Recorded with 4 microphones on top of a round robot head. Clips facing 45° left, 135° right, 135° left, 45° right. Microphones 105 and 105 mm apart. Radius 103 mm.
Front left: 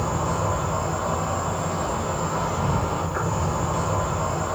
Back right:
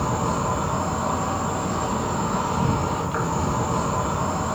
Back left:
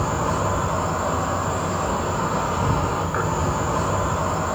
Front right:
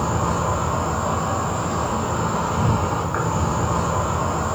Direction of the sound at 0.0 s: 105° right.